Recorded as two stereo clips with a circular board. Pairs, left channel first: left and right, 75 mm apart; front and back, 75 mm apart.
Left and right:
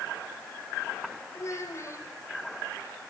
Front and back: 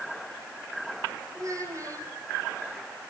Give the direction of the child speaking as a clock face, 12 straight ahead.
7 o'clock.